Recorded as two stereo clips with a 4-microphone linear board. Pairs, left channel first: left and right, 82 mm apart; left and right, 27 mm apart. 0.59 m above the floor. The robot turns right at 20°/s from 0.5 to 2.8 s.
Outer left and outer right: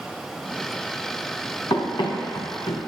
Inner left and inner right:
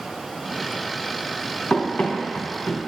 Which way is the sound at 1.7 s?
65° left (ahead or behind).